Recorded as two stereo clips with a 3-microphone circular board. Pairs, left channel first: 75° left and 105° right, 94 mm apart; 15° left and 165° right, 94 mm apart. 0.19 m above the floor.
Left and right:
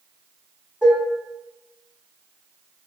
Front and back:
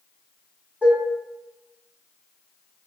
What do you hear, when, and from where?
0.8 s dishes clattering: 150° right, 0.8 m